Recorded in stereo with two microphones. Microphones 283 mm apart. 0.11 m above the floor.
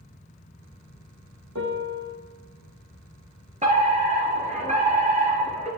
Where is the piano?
70° right (ahead or behind), 2.5 m.